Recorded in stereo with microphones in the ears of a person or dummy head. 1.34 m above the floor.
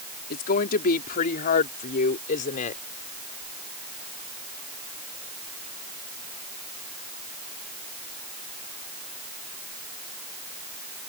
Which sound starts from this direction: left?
A woman speaking, at 0.3 s.